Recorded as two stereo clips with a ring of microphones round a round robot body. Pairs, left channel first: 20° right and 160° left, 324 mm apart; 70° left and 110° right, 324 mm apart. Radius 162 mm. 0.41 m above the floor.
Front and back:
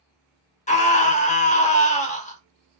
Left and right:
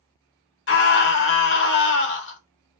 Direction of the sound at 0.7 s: 35° left.